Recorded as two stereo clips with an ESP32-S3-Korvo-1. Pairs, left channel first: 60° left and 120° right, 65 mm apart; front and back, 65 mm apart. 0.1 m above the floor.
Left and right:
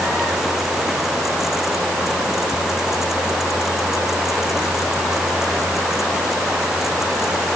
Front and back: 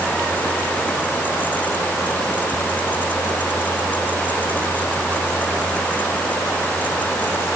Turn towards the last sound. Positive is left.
No sound to turn to.